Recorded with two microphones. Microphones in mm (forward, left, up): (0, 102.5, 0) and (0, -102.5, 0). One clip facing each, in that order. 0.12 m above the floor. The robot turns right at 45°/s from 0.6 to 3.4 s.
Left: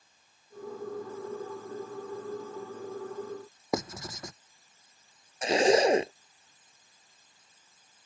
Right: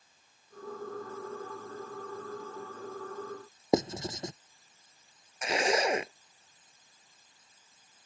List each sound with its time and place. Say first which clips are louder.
3.7 s writing: right 5 dB; 25° right (ahead or behind)
5.4 s a zipper: left 7 dB; 30° left (ahead or behind)